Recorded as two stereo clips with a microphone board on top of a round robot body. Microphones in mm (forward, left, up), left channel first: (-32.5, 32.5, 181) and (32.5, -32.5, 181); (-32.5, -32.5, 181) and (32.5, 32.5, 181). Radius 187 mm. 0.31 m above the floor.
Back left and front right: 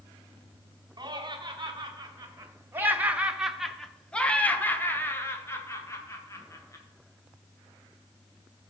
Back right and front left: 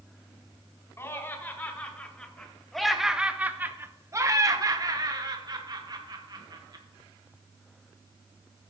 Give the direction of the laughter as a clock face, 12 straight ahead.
3 o'clock.